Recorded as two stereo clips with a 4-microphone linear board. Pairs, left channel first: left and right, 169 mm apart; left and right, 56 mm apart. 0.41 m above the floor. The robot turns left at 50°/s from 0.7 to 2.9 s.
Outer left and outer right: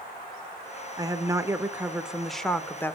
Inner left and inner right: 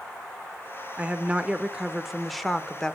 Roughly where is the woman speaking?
Right.